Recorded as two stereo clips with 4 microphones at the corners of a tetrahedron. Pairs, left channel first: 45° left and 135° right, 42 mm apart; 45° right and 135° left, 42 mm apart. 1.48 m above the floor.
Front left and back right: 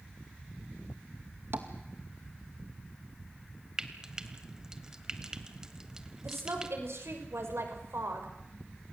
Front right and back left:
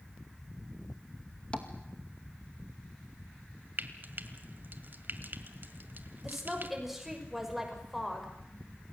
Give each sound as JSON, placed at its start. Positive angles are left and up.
{"t": 1.5, "sound": "tapping", "azimuth_deg": -110, "distance_m": 2.0}
{"t": 3.8, "sound": "frying", "azimuth_deg": 155, "distance_m": 1.8}
{"t": 6.2, "sound": "a woman speaking", "azimuth_deg": -140, "distance_m": 6.0}